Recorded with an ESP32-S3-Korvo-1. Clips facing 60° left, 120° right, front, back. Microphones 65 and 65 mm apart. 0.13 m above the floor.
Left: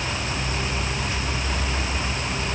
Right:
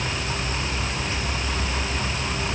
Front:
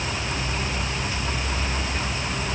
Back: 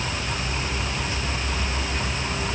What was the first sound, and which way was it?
Only background noise.